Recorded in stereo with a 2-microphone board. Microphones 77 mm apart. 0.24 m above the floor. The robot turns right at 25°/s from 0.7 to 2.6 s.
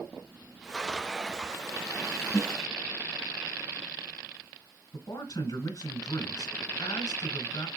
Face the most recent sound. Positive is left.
turn(degrees=55)  # may be behind; listen again after turning